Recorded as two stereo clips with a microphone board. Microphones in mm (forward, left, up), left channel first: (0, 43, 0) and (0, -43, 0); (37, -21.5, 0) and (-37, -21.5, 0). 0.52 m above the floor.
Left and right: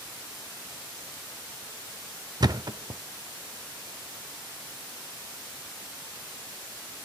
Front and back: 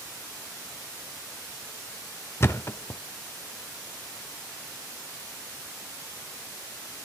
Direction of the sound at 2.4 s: 55° right.